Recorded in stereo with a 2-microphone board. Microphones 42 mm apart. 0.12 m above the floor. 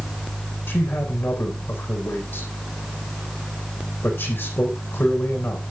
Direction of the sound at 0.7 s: 45° left (ahead or behind).